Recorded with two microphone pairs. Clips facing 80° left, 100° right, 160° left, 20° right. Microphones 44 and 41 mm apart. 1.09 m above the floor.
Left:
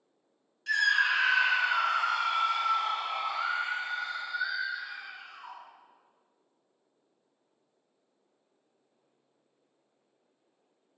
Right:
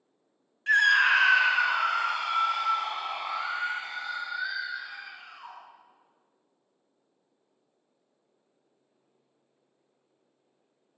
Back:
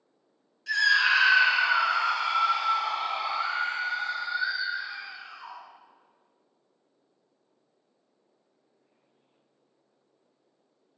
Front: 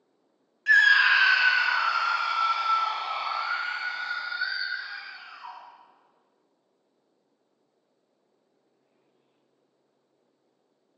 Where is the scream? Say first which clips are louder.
Right 5 dB, front 4 dB; 45° right, 0.6 m; by 5.6 s 150° right, 4.5 m.